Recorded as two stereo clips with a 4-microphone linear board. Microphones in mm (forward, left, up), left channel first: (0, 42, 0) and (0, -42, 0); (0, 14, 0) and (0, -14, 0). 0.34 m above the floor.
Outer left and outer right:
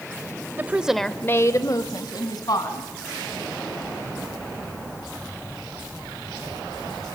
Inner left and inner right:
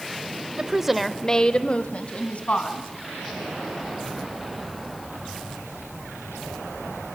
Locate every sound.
0.6 s a woman speaking: 25° right (ahead or behind), 1.1 m; by 2.9 s 55° left (ahead or behind), 3 m